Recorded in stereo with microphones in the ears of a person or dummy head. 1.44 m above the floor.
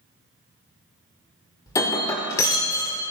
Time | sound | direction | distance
1.7 | breaking glass | 20° left (ahead or behind) | 1.9 m